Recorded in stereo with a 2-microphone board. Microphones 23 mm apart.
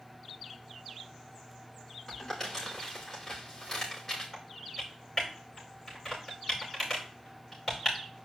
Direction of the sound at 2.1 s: Centre (ahead or behind).